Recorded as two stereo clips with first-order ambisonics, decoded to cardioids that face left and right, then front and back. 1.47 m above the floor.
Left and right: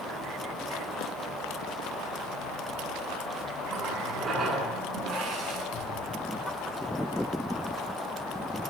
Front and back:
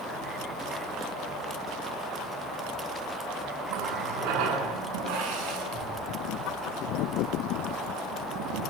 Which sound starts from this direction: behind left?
A thud, at 5.7 s.